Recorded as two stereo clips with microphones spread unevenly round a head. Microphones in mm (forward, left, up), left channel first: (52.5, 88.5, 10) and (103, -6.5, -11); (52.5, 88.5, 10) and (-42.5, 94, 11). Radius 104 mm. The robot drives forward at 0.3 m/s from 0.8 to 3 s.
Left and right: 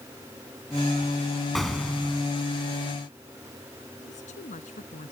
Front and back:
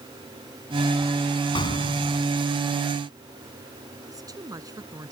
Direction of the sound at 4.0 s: 125° left.